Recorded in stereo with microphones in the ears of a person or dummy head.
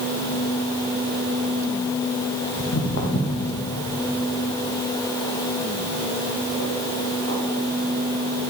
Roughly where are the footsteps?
Left.